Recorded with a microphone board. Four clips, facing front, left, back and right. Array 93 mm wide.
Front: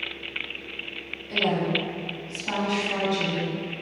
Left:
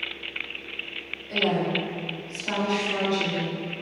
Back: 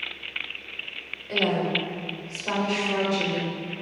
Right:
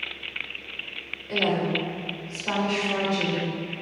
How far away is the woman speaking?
About 2.0 m.